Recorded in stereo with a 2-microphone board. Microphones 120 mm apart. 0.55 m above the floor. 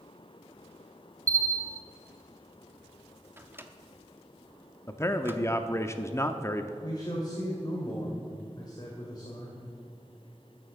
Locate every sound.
1.3 s a bell: 25° right (ahead or behind), 0.7 m
3.4 s a microwave: 20° right (ahead or behind), 0.7 m
4.9 s a man speaking: 25° left (ahead or behind), 0.6 m
6.8 s a man speaking: 35° left (ahead or behind), 2.0 m